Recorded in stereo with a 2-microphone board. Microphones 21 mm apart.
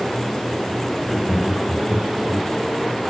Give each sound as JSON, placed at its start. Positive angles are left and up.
{"t": 1.0, "sound": "laughter", "side_deg": -10, "distance_m": 0.8}